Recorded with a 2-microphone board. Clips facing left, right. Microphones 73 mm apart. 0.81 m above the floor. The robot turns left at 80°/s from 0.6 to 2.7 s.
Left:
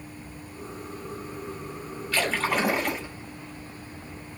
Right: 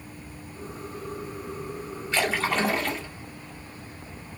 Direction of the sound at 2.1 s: 155° right.